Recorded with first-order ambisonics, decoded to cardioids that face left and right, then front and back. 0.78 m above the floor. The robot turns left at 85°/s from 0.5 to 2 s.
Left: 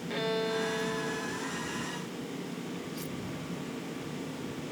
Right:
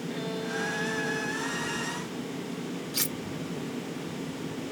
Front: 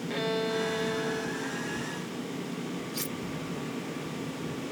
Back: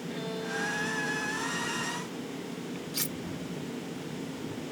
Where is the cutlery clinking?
105° right.